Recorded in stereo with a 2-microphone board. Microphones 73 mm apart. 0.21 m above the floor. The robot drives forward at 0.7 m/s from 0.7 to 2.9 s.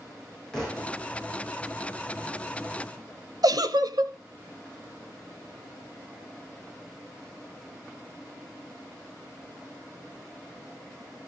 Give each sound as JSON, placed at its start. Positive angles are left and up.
{"t": 0.5, "sound": "a thud", "side_deg": 10, "distance_m": 7.0}
{"t": 3.4, "sound": "a giggle", "side_deg": -65, "distance_m": 0.9}